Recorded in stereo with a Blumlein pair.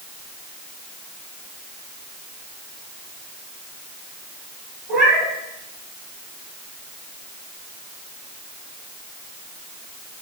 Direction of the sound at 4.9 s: 15° right.